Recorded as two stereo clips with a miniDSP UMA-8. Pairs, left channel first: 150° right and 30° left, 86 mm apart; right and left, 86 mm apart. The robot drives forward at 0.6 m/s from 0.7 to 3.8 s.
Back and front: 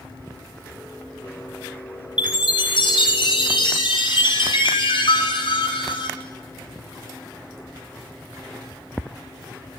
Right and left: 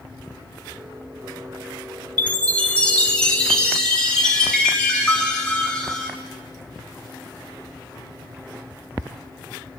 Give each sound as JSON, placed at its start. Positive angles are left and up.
{"t": 2.2, "sound": "a chime", "azimuth_deg": -160, "distance_m": 1.2}